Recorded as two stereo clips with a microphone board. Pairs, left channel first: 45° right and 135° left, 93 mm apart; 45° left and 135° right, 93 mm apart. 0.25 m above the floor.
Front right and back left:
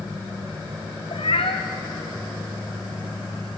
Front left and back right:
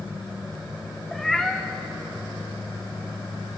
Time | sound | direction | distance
1.1 | a cat meowing | 40° right | 1.9 m